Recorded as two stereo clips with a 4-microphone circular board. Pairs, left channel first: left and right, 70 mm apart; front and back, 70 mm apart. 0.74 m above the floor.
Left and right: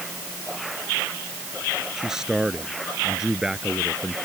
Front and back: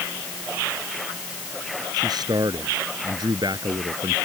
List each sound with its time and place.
2.0 s a man speaking: 170° right